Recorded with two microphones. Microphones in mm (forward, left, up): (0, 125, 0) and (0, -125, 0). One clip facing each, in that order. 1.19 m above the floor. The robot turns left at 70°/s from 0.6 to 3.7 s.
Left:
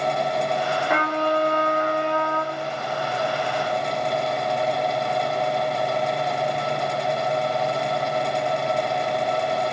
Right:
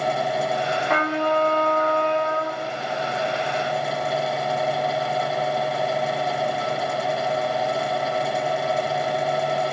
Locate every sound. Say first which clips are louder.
0.9 s a trumpet: right 2 dB; 10° left, 0.8 m; by 2.6 s 110° right, 0.8 m